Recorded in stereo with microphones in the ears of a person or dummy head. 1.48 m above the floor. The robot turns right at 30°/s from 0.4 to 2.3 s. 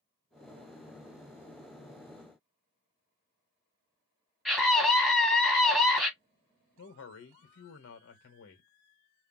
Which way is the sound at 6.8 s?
70° left (ahead or behind).